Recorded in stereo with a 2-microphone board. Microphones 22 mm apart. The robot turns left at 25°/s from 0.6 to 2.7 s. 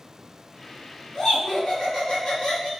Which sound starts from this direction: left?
Laughter, at 1.1 s.